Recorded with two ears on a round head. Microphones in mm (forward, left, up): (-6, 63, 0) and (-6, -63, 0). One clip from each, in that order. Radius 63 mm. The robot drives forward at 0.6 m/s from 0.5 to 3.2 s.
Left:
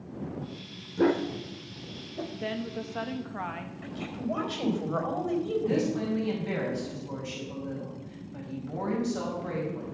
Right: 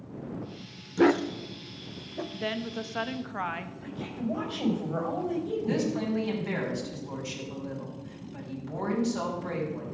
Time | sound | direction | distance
1.0 | a dog barking | 55° right (ahead or behind) | 0.6 m
2.3 | a woman speaking | 30° right (ahead or behind) | 0.9 m
3.8 | a woman speaking | 60° left (ahead or behind) | 4.5 m
5.7 | a woman speaking | 15° right (ahead or behind) | 5 m